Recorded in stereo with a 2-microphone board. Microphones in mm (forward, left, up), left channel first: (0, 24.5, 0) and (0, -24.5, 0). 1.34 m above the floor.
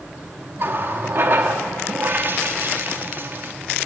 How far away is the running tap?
About 1.5 m.